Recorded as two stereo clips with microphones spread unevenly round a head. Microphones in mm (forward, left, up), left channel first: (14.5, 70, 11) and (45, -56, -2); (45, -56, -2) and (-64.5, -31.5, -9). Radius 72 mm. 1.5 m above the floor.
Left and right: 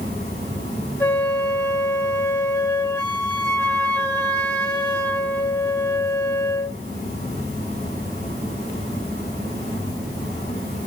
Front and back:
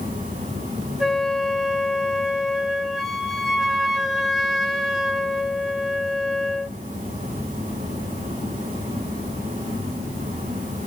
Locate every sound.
0.0 s a fan: 170° left, 7 m
1.0 s a flute: 75° left, 1.3 m